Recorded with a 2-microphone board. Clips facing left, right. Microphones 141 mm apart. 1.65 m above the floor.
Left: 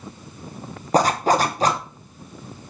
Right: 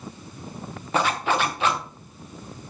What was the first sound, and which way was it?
A zipper, 40° left (ahead or behind).